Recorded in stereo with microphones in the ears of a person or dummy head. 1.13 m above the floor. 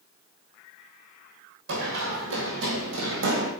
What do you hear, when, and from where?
1.7 s running footsteps: 70° right (ahead or behind), 3 m; by 3.5 s 65° right (ahead or behind), 2.5 m